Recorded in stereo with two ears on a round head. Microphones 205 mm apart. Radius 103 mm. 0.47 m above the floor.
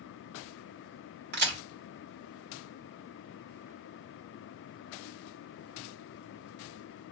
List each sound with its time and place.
1.3 s a crack: 50° right (ahead or behind), 2 m